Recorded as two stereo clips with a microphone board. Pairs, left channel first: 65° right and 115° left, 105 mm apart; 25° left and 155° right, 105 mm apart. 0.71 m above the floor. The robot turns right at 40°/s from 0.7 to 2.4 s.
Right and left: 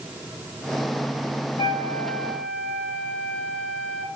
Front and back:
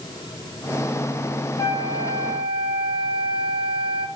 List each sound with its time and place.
1.6 s a flute: 10° right, 2 m; by 4.1 s 20° left, 2 m